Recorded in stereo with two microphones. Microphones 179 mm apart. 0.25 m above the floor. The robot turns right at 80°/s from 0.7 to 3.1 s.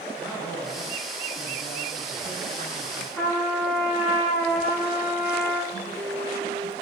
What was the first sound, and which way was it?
A man speaking, 10° right.